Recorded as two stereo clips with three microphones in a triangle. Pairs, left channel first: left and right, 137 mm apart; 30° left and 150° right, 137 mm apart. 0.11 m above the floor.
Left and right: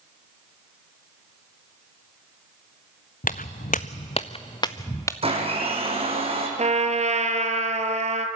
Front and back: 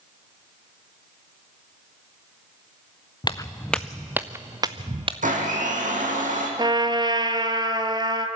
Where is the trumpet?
100° right, 1.2 m.